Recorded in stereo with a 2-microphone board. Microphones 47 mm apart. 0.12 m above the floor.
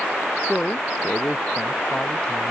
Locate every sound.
0.4 s a man speaking: 20° left (ahead or behind); by 2.5 s 25° left (ahead or behind)